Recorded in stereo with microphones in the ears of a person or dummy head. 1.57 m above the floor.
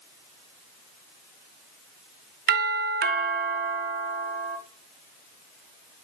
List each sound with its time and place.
2.5 s a doorbell: 50° right (ahead or behind), 1.0 m